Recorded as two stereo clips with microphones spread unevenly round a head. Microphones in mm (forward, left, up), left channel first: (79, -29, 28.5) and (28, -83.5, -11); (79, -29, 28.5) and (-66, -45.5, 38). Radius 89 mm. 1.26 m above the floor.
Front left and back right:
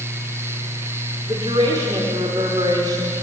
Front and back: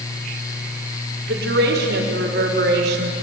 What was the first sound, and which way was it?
A woman speaking, 170° left.